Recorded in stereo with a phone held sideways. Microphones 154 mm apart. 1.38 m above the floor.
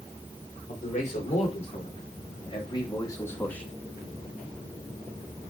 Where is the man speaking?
50° left (ahead or behind), 4 m; by 3.7 s 5° left (ahead or behind), 1.8 m.